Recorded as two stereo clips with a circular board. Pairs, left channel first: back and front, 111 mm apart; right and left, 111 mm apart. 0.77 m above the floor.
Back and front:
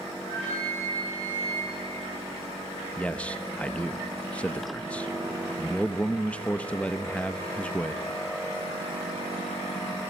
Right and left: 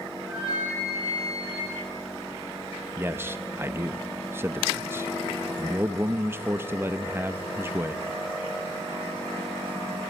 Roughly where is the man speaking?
Behind left.